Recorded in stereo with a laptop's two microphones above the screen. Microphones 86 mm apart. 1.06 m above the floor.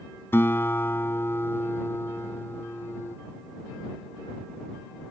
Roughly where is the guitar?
Left.